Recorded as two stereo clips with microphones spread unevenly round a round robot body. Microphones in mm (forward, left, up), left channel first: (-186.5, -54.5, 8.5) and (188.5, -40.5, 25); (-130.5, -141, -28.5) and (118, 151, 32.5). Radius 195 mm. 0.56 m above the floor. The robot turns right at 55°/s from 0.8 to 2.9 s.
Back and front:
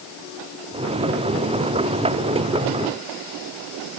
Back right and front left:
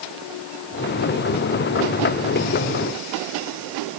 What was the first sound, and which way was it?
Only background noise.